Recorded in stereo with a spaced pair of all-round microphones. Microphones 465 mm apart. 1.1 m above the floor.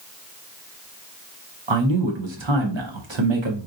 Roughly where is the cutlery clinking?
I don't hear cutlery clinking.